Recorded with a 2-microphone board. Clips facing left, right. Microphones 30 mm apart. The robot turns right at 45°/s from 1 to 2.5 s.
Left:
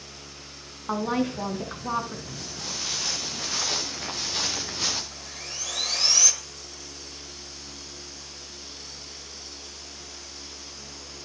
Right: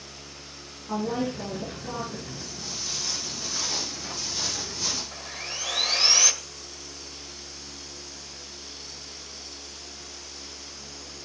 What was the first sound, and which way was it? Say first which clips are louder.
A woman speaking: left 2 dB; 75° left.